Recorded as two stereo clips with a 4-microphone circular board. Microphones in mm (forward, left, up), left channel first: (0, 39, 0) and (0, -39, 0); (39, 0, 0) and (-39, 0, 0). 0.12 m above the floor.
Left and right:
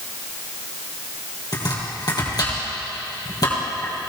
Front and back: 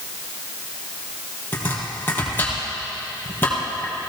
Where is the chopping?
60° left, 3.5 m.